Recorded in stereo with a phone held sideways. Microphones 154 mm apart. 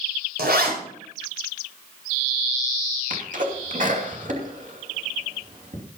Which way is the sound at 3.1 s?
55° right (ahead or behind).